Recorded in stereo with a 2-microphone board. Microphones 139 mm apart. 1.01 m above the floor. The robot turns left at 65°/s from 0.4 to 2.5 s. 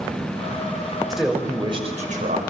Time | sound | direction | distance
1.1 | a man speaking | straight ahead | 5.5 m